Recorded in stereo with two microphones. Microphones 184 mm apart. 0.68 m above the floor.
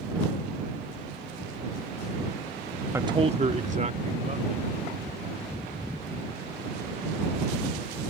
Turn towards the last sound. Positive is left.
turn(degrees=-45)  # may be behind; listen again after turning